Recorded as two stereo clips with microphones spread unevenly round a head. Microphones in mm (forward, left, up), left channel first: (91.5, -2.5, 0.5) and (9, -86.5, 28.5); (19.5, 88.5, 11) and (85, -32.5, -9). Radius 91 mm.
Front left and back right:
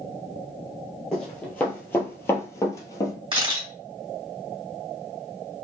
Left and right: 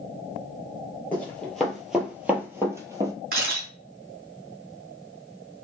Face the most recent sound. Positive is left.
turn(degrees=-100)